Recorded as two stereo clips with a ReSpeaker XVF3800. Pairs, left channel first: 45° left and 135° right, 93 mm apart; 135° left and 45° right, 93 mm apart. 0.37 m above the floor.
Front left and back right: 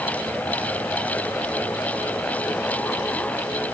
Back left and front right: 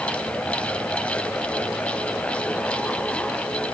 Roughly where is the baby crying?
No baby crying in this recording.